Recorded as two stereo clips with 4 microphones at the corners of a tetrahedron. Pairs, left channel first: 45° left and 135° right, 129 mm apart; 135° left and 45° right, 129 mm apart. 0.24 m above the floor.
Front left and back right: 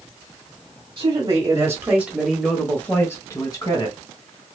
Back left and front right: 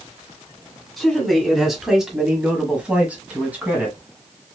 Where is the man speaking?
140° right, 1.4 m; by 4.0 s 25° left, 1.5 m.